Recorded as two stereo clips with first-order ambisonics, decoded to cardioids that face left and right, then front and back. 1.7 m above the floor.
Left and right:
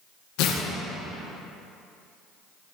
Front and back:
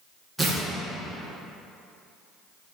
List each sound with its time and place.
0.4 s tearing paper: 90° left, 1.6 m